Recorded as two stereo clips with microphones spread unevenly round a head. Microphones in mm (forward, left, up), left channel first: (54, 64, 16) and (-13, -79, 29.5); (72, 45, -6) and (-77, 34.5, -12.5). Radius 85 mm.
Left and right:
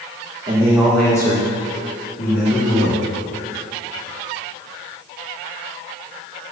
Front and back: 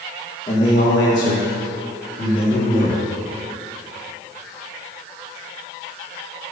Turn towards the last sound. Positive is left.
turn(degrees=45)